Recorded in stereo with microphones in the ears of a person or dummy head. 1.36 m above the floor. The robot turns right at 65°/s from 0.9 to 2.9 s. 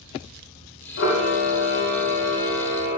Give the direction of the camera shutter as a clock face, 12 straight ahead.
10 o'clock.